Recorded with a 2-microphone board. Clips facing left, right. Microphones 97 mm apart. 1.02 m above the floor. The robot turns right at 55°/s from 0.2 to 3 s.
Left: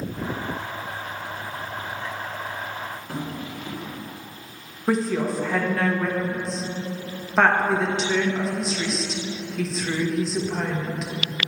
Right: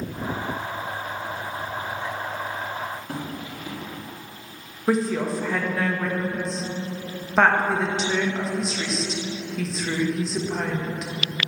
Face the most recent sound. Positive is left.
turn(degrees=-5)  # may be behind; listen again after turning